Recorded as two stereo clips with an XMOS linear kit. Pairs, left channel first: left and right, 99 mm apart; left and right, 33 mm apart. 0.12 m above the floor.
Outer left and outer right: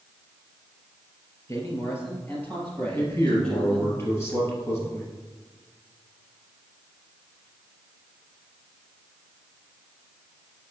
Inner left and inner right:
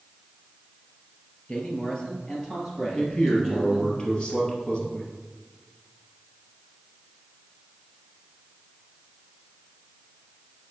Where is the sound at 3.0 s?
25° left (ahead or behind), 2.5 m.